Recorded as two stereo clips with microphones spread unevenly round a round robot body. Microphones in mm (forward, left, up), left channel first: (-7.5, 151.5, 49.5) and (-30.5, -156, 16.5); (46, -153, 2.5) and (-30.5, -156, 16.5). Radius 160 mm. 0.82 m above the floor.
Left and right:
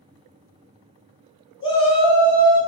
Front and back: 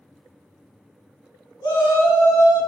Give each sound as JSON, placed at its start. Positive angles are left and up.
{"t": 1.6, "sound": "a shout", "azimuth_deg": 25, "distance_m": 1.8}